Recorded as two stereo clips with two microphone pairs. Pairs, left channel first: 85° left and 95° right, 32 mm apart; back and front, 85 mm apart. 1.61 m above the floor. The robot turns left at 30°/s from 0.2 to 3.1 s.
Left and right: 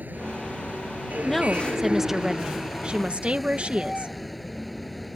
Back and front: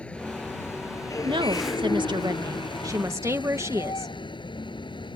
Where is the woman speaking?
Straight ahead; by 4.1 s 55° right.